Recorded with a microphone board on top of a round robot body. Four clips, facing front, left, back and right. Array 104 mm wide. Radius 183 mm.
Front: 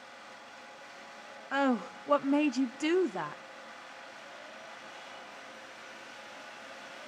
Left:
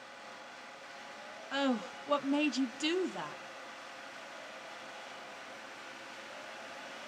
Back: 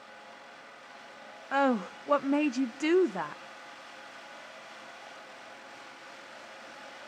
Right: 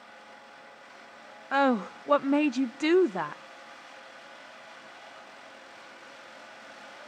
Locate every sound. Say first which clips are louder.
1.5 s a woman speaking: right 9 dB, back 2 dB; 100° right, 1.0 m